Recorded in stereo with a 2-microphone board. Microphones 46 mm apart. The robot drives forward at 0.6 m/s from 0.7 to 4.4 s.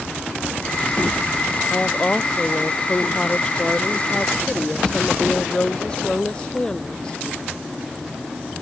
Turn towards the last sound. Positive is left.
turn(degrees=20)  # may be behind; listen again after turning